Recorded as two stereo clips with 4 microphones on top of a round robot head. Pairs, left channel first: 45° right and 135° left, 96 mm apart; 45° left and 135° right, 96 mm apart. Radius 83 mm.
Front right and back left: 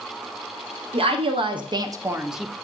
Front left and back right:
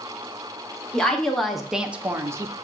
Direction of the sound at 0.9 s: 130° left.